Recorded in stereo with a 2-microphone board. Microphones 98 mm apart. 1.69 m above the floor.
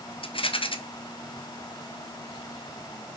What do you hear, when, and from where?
0.2 s a rattle: 65° left (ahead or behind), 1.0 m